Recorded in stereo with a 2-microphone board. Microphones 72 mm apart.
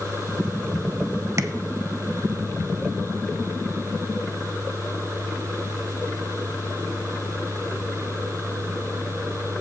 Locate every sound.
1.4 s tapping: 40° right (ahead or behind), 0.7 m